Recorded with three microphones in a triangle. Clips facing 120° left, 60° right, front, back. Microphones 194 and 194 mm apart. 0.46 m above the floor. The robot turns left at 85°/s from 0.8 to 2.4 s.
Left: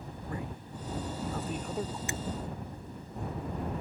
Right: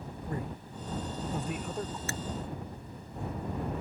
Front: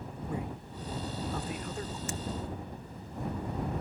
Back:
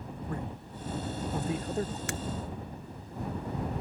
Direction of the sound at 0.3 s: 75° right.